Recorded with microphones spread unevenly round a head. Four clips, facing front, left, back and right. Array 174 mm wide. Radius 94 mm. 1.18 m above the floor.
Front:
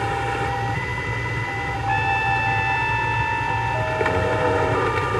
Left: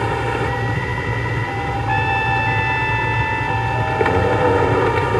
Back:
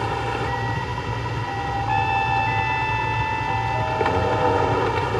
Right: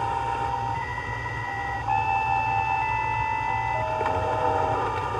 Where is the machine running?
85° left.